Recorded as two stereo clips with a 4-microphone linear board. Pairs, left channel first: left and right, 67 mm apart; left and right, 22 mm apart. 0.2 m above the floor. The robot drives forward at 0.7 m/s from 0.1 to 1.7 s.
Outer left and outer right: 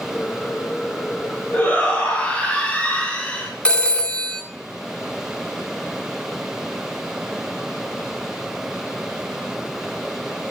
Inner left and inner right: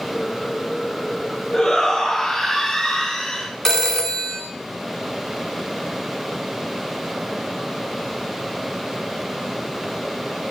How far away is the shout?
About 1.6 m.